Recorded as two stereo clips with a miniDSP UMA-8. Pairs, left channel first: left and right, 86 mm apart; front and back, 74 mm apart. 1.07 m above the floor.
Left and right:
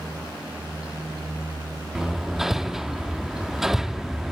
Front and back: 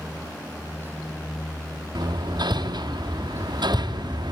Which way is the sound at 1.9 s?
175° right.